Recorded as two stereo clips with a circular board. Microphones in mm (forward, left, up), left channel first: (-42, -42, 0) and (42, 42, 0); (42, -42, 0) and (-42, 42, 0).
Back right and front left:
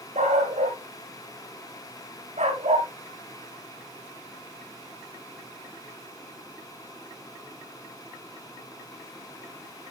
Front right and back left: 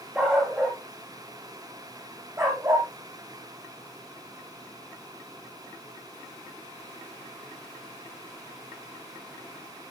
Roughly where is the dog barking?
Ahead left.